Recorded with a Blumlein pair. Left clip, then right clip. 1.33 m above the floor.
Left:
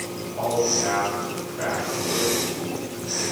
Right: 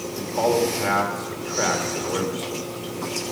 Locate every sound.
0.1 s a man speaking: 65° right, 2.5 m